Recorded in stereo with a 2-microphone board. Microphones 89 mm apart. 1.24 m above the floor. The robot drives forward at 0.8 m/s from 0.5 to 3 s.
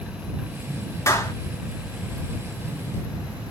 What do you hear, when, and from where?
1.1 s a clap: 35° left (ahead or behind), 2.5 m